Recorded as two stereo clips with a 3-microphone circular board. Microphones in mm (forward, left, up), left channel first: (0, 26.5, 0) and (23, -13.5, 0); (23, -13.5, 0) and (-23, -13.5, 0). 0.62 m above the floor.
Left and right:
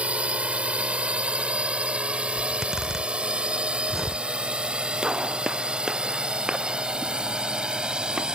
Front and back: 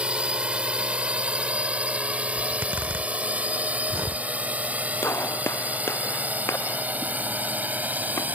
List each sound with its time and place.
0.0 s a drone: 120° right; by 8.4 s 130° right
2.4 s a zipper: 145° right
5.0 s a gunshot: 15° left